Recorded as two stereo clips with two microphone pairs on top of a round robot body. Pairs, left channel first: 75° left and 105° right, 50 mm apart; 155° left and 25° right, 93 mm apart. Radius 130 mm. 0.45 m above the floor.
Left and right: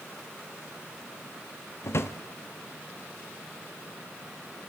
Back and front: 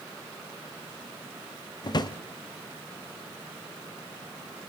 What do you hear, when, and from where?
1.8 s a drawer: 110° left, 1.2 m